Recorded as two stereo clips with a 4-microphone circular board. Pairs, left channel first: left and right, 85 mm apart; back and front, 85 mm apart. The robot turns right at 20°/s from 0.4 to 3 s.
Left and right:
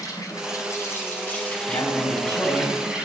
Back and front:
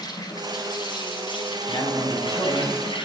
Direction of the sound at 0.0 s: 140° left.